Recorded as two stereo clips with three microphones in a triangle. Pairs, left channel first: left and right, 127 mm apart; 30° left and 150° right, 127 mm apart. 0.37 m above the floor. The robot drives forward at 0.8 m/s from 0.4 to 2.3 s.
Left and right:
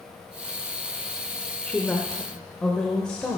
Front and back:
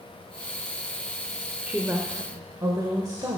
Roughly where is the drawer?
I don't hear a drawer.